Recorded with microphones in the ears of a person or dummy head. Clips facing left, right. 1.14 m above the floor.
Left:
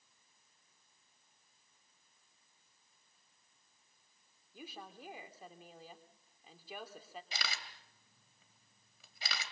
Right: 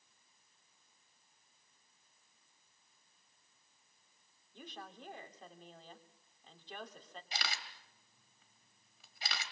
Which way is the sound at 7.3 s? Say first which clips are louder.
Right 4 dB; 80° left.